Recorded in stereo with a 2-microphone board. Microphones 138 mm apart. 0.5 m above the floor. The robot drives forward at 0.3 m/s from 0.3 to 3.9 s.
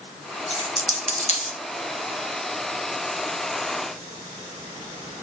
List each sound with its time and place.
0.5 s a dropped coin: 50° left (ahead or behind), 1.7 m; by 1.6 s 60° left (ahead or behind), 1.5 m